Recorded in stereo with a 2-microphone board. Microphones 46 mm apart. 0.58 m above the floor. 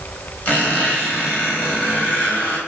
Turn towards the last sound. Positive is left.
turn(degrees=40)  # may be behind; listen again after turning